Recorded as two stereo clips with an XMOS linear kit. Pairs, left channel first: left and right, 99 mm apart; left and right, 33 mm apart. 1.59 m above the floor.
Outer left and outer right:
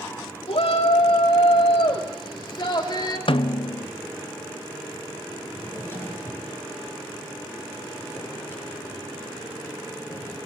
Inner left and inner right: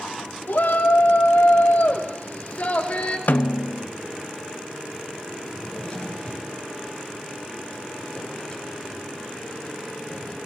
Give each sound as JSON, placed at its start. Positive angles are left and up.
{"t": 0.5, "sound": "a shout", "side_deg": 80, "distance_m": 3.0}
{"t": 3.3, "sound": "a snare drum", "side_deg": 60, "distance_m": 0.5}
{"t": 5.5, "sound": "a drawer", "side_deg": 25, "distance_m": 9.0}